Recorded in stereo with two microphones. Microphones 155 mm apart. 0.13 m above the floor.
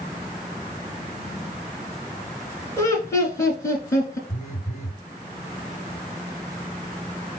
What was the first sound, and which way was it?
Laughter, 20° left (ahead or behind).